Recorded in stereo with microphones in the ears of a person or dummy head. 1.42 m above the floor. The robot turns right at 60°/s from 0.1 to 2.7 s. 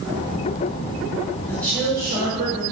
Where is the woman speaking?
165° left, 4.5 m; by 2.6 s 130° right, 4.5 m.